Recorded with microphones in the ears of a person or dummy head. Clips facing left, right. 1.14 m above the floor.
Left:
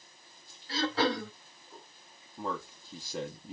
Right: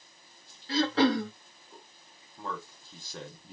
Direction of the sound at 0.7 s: 55° right (ahead or behind).